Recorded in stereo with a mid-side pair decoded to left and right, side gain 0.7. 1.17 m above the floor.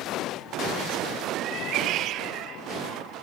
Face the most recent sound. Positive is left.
turn(degrees=-60)